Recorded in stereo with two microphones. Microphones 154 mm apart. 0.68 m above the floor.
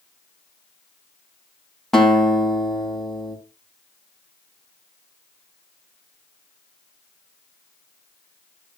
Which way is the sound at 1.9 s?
Centre (ahead or behind).